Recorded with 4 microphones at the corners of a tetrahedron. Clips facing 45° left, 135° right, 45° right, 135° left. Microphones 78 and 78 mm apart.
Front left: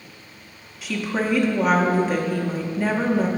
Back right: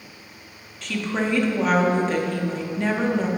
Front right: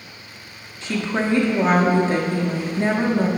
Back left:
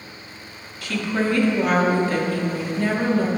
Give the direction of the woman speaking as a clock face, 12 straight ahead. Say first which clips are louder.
Front left 1 dB, even; 1 o'clock.